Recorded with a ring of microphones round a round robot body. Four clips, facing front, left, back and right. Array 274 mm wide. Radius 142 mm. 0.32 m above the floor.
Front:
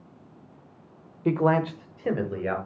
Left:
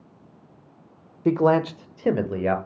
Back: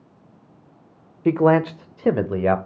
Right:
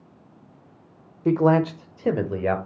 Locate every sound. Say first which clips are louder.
1.2 s a man speaking: even, back 6 dB; 150° left, 0.9 m; by 2.6 s 170° left, 1.3 m